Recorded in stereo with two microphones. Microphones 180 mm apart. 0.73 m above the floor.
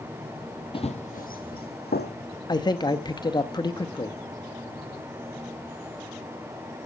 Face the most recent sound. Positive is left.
turn(degrees=25)  # may be behind; listen again after turning